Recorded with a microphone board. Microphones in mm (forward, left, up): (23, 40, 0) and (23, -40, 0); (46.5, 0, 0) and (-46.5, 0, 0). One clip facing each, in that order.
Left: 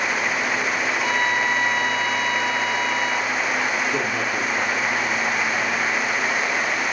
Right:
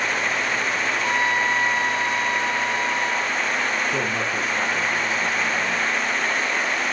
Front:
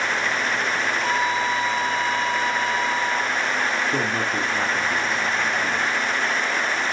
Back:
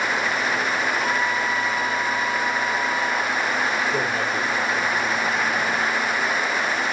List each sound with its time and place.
0.9 s a trumpet: 35° right, 7.5 m
3.9 s a man speaking: 5° right, 3 m